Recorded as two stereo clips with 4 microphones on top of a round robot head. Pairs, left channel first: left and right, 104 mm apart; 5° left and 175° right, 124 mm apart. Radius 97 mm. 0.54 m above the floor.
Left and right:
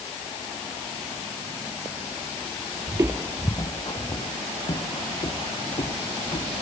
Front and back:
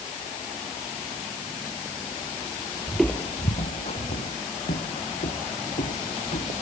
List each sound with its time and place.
2.9 s footsteps: 110° right; by 6.5 s 45° left